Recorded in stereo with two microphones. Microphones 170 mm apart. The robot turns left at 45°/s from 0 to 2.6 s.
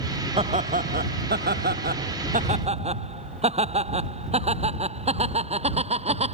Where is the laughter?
40° right; by 6.3 s 140° right.